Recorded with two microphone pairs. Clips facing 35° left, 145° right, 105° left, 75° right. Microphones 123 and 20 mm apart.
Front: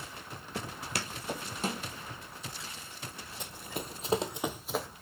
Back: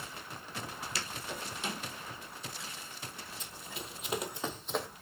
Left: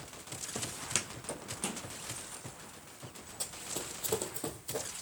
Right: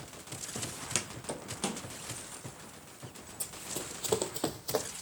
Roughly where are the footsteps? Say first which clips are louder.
Front 4 dB, even; ahead left.